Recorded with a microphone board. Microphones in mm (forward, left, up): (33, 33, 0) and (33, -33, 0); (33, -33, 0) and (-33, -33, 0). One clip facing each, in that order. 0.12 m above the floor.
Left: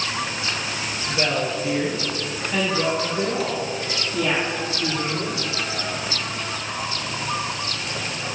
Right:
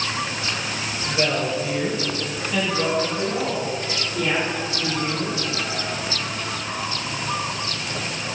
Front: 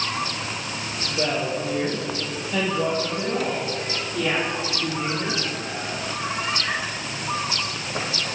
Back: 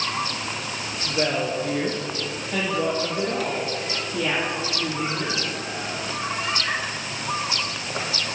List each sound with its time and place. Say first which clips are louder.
1.1 s a woman speaking: right 1 dB, back 1 dB; 175° right, 2.5 m; by 5.4 s 130° left, 5.5 m